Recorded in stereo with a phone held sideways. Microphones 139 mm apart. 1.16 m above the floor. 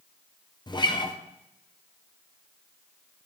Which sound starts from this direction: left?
A guitar, at 0.7 s.